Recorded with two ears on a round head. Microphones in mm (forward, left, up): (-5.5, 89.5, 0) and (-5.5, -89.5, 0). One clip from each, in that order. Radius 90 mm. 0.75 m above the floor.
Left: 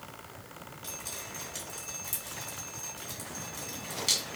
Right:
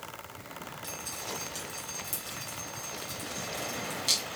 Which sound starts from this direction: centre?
Dripping, at 0.8 s.